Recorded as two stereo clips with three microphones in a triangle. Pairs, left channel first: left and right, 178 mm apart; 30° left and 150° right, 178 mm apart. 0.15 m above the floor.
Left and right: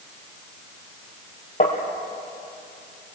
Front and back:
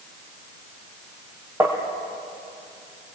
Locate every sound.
1.6 s tapping: 130° left, 4 m